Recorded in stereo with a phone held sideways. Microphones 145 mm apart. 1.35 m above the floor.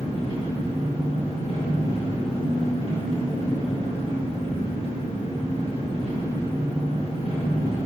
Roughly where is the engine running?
Left.